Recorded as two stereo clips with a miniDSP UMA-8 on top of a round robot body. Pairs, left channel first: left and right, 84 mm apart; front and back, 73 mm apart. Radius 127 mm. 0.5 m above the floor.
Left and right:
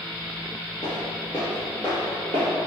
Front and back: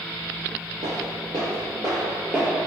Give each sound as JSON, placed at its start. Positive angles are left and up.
{"t": 0.8, "sound": "footsteps", "azimuth_deg": 135, "distance_m": 0.8}